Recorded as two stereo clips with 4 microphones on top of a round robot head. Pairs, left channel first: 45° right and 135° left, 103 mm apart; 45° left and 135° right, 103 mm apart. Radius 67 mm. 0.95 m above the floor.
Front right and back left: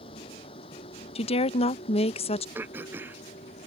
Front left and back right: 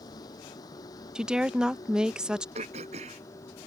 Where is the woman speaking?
50° right.